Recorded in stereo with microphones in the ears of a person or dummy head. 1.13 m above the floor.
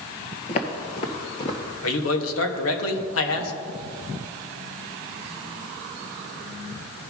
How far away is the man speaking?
About 1.4 m.